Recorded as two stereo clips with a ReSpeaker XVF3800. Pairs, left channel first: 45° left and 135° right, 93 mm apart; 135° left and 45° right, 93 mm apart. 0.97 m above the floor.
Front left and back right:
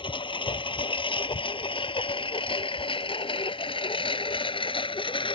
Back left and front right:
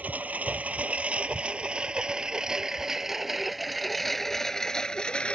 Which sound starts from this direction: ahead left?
A lawn mower, at 0.0 s.